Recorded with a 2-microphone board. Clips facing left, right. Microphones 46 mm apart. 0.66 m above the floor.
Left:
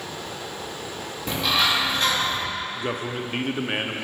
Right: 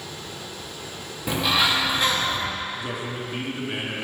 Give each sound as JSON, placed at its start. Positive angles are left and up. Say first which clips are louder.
{"t": 1.3, "sound": "a bird", "louder": "right 1 dB", "side_deg": -10, "distance_m": 1.0}
{"t": 2.8, "sound": "a man speaking", "louder": "left 2 dB", "side_deg": 45, "distance_m": 0.7}